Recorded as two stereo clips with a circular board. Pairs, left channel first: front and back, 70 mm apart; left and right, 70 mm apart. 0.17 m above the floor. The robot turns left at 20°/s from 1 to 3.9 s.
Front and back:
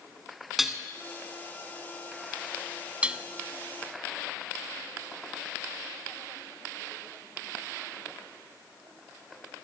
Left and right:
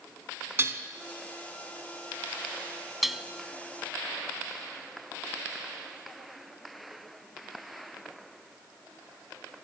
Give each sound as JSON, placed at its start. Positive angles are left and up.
{"t": 0.6, "sound": "dishes clattering", "azimuth_deg": -95, "distance_m": 1.2}
{"t": 3.0, "sound": "dishes clattering", "azimuth_deg": -170, "distance_m": 0.8}